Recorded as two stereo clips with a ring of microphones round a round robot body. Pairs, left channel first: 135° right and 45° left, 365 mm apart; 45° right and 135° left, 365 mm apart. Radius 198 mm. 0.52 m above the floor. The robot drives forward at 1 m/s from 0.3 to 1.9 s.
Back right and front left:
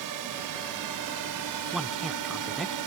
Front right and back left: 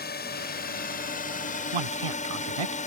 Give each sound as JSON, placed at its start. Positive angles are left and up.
{"t": 0.0, "sound": "a drone", "azimuth_deg": 15}
{"t": 1.7, "sound": "a man speaking", "azimuth_deg": 135}